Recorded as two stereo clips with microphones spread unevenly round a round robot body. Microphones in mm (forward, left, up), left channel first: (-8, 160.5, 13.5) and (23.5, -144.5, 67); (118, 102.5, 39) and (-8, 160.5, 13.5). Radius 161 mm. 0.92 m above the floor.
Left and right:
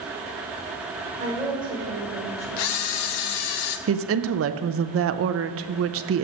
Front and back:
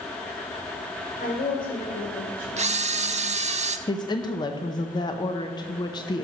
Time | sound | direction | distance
1.2 | a woman speaking | 10° right | 3.5 m
2.6 | a camera shutter | 110° left | 0.7 m
3.9 | a woman speaking | 75° right | 0.6 m